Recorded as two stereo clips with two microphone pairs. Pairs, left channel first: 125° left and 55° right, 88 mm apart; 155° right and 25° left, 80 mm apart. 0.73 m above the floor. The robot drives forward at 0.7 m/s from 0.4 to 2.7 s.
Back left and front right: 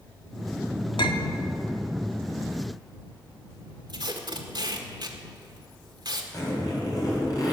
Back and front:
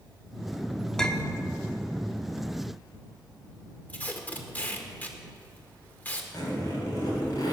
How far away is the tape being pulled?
About 1.7 m.